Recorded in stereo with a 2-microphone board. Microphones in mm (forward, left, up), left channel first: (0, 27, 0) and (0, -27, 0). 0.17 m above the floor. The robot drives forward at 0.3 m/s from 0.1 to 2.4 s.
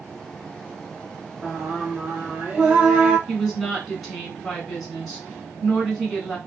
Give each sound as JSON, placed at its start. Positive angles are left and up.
{"t": 1.4, "sound": "singing", "side_deg": -25, "distance_m": 1.4}
{"t": 3.3, "sound": "a woman speaking", "side_deg": 5, "distance_m": 1.8}